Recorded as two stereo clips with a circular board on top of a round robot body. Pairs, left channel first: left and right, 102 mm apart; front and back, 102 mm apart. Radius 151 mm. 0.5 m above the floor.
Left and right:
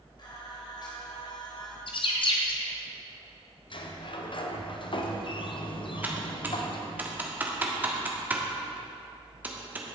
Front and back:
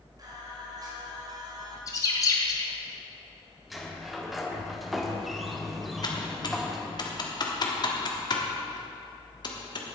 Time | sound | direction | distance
0.2 | singing | 130° left | 2.5 m
1.9 | a bird | 55° left | 1.2 m
3.7 | a sliding door | 90° left | 1.3 m
6.0 | typing on a keyboard | 25° right | 1.6 m